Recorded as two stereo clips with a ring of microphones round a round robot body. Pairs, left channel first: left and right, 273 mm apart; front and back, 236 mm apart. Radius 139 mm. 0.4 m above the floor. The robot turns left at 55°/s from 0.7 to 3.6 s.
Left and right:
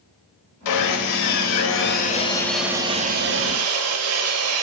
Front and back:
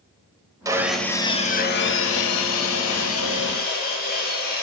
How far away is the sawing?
About 0.8 m.